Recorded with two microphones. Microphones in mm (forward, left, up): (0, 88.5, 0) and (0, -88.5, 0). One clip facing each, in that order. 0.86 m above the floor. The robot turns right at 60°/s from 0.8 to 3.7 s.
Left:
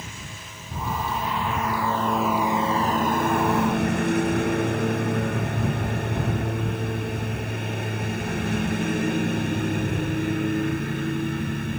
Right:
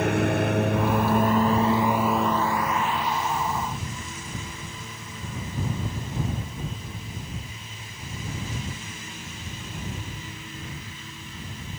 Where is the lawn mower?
85° right; by 11.8 s 75° left (ahead or behind).